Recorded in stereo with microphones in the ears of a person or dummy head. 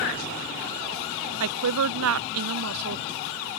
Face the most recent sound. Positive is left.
turn(degrees=-80)